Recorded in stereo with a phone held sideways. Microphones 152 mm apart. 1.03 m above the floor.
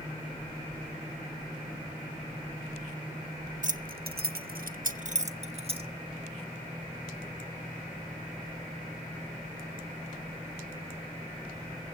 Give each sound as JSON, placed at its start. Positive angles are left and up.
{"t": 3.6, "sound": "keys jangling", "side_deg": -55, "distance_m": 0.7}